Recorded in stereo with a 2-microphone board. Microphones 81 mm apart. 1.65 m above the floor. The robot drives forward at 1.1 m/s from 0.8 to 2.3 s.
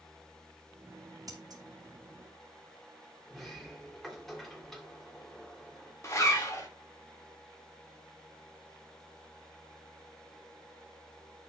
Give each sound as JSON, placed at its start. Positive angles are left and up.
{"t": 1.3, "sound": "scissors", "side_deg": -50, "distance_m": 2.5}
{"t": 3.3, "sound": "a sliding door", "side_deg": 5, "distance_m": 2.5}
{"t": 6.0, "sound": "a zipper", "side_deg": 35, "distance_m": 2.0}